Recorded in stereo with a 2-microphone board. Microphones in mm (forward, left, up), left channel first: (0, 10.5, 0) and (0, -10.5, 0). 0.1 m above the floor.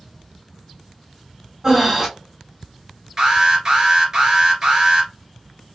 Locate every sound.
1.6 s breathing: 25° right (ahead or behind), 0.9 m
3.2 s an alarm: 30° right (ahead or behind), 2 m